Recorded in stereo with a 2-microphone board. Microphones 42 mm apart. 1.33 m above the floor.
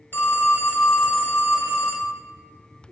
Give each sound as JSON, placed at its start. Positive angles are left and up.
{"t": 0.1, "sound": "a phone ringing", "side_deg": 50, "distance_m": 1.0}